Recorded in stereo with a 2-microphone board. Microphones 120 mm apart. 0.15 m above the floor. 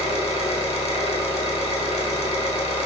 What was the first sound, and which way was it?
An engine running, 60° left (ahead or behind).